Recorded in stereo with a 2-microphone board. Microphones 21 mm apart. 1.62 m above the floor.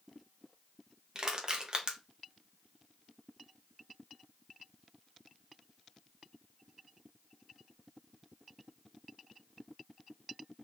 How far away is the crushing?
About 0.9 m.